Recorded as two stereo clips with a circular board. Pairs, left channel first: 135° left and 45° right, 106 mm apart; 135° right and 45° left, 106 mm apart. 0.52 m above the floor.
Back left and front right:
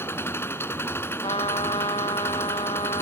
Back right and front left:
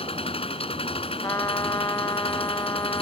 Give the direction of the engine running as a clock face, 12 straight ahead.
5 o'clock.